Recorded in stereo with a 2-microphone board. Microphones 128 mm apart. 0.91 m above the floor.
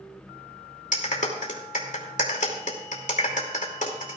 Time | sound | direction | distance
0.9 | a clap | 75° left (ahead or behind) | 2.5 m